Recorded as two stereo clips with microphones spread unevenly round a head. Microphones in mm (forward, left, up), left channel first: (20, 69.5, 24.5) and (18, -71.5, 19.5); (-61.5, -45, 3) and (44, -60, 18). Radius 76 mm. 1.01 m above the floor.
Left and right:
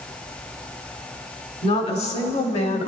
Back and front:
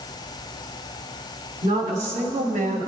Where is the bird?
No bird in this recording.